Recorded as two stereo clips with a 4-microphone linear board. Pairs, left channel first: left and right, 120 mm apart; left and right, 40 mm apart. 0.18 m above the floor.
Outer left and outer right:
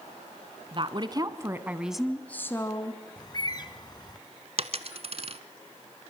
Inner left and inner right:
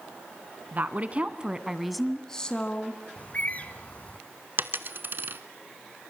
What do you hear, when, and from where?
0.7 s a woman speaking: 45° right (ahead or behind), 1.5 m; by 3.0 s 35° left (ahead or behind), 1.5 m
3.2 s a bird: 35° left (ahead or behind), 1.2 m
4.6 s a dropped coin: 55° right (ahead or behind), 1.0 m